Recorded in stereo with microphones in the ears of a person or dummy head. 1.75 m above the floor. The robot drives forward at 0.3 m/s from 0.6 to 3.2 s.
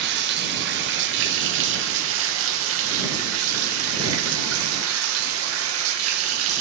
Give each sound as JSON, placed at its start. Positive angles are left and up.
{"t": 0.0, "sound": "running water", "side_deg": -60, "distance_m": 1.8}